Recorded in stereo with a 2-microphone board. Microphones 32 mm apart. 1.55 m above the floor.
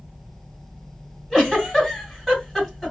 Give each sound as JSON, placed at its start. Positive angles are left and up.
{"t": 1.3, "sound": "a giggle", "side_deg": 10, "distance_m": 2.0}